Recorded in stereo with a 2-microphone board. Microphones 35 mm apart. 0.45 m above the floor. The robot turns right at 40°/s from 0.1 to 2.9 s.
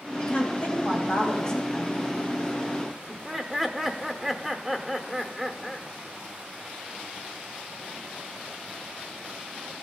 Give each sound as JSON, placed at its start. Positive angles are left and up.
{"t": 0.3, "sound": "a woman speaking", "azimuth_deg": 115, "distance_m": 2.5}
{"t": 3.1, "sound": "laughter", "side_deg": -5, "distance_m": 0.7}